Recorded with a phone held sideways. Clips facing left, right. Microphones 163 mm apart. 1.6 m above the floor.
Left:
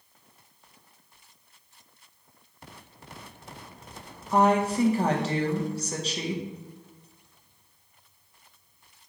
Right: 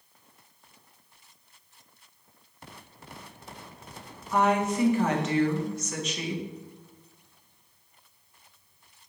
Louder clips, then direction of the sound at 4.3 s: Left 2 dB; 35° left (ahead or behind).